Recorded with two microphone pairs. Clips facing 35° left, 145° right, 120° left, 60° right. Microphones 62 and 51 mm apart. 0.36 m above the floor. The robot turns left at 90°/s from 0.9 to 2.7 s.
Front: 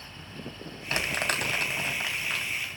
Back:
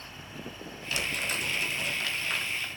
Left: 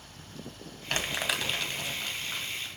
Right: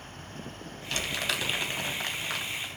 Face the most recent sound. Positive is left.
turn(degrees=-90)